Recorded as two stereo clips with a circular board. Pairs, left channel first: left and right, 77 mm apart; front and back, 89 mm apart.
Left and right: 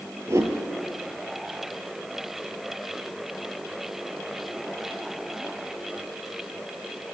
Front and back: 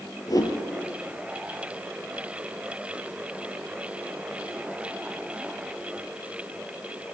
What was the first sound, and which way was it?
A whoosh, 40° right.